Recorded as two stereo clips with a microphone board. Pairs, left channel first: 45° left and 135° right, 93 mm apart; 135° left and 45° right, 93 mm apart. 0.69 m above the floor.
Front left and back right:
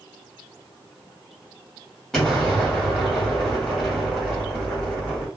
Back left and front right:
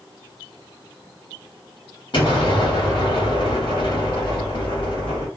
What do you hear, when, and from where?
2.1 s an explosion: 130° left, 1.5 m